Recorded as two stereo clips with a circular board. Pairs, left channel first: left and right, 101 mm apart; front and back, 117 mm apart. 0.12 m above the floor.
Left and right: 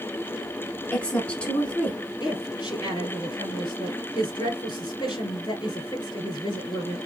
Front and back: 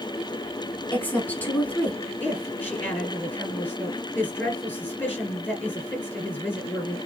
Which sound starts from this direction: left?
A woman speaking, at 2.2 s.